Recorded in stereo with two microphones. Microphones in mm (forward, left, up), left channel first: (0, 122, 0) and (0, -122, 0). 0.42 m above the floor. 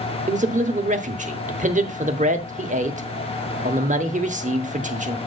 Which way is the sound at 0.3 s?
30° right (ahead or behind).